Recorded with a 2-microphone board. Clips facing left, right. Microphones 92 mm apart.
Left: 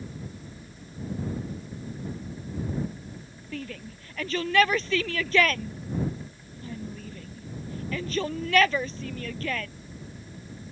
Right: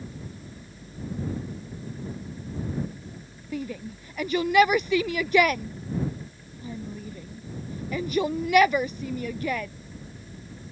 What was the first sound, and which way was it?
A shout, 15° right (ahead or behind).